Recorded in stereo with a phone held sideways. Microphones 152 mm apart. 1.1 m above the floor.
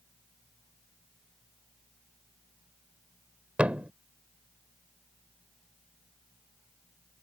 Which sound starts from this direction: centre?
A thud, at 3.6 s.